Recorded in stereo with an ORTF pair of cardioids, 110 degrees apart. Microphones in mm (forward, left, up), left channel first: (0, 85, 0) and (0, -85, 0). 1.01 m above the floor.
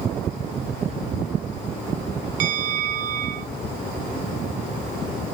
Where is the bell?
55° right, 0.6 m.